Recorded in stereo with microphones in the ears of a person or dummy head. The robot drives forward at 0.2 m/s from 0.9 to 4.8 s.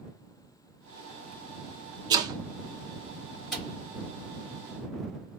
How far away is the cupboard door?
About 1.2 m.